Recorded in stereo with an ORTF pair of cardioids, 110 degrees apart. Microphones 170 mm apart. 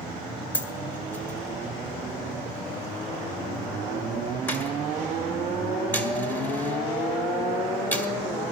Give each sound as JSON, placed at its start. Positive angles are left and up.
{"t": 0.5, "sound": "a dropped coin", "azimuth_deg": 10, "distance_m": 1.8}